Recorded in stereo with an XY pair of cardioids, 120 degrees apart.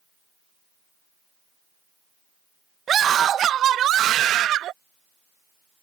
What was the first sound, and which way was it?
A scream, 45° right.